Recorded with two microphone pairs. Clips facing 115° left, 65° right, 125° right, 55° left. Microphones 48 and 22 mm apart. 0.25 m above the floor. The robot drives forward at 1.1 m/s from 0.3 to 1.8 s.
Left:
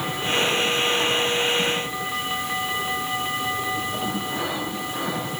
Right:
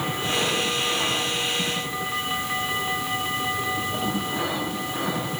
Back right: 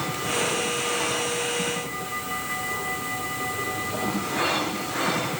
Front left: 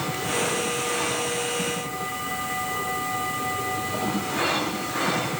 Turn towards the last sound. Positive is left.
No sound to turn to.